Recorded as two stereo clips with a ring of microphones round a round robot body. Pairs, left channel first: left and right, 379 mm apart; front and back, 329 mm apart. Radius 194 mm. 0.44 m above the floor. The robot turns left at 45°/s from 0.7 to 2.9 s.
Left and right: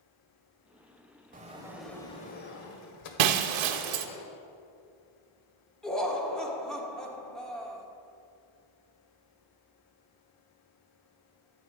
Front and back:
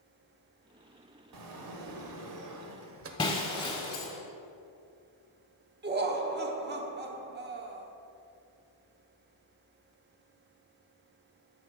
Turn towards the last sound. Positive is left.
turn(degrees=175)